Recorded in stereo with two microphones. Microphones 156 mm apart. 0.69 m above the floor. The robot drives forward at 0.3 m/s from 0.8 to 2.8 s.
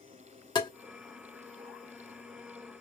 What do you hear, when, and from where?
0.6 s tapping: 30° left (ahead or behind), 0.9 m